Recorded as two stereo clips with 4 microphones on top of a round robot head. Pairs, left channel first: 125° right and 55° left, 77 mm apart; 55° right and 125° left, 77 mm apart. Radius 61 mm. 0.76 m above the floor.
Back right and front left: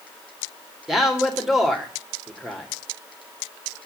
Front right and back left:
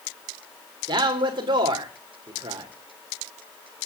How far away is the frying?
No frying in this recording.